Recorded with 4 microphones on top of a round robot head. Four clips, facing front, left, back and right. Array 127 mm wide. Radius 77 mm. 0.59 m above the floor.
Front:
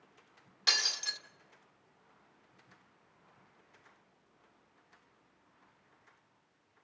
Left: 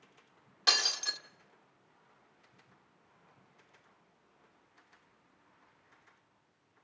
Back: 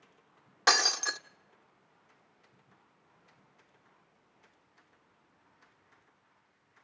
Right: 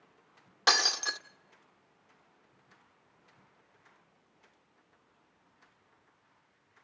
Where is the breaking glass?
145° right, 0.8 m.